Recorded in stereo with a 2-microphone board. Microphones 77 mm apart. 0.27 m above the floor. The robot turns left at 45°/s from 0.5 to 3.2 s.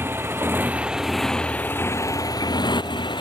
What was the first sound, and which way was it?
A motorcycle, 150° right.